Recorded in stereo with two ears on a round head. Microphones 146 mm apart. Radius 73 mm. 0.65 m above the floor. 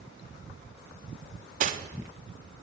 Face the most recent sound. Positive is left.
turn(degrees=-45)  # may be behind; listen again after turning